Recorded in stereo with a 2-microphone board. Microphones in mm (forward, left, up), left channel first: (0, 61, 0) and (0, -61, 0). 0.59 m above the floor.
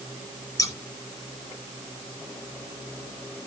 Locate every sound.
0.6 s scissors: 30° left (ahead or behind), 1.8 m